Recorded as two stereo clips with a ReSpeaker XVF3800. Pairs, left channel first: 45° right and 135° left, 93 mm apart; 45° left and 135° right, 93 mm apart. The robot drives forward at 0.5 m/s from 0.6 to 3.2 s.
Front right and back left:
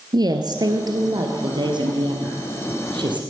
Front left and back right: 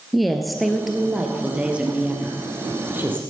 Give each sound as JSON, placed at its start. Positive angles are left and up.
{"t": 0.1, "sound": "a woman speaking", "azimuth_deg": 135, "distance_m": 1.5}